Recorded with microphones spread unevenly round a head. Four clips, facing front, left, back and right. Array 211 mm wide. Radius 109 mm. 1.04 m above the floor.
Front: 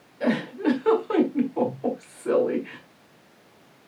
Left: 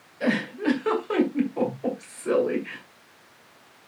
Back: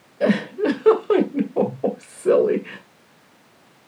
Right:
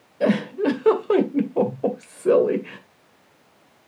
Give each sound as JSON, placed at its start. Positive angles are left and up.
{"t": 0.2, "sound": "a giggle", "azimuth_deg": -135, "distance_m": 2.5}